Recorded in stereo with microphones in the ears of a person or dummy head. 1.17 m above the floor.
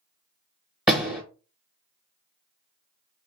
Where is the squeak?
No squeak in this recording.